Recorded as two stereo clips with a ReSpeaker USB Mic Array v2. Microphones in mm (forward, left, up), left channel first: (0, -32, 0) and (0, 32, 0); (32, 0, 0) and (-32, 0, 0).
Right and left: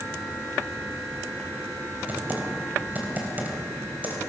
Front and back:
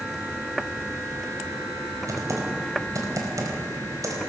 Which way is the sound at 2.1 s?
150° left.